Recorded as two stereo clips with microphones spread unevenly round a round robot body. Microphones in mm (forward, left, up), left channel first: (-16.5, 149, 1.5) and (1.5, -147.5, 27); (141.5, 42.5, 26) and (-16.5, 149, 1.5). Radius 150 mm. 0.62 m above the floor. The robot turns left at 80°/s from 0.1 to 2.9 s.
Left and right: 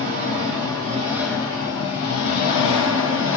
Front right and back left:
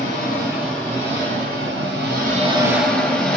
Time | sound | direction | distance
0.0 | an engine running | 85° right | 1.7 m